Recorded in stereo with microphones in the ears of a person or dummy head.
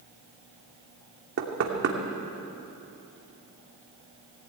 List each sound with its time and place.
1.4 s knocking: 65° right (ahead or behind), 2.5 m